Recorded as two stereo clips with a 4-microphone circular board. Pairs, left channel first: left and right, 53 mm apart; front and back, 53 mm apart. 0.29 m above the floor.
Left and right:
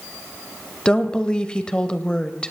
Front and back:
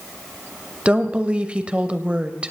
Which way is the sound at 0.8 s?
140° left.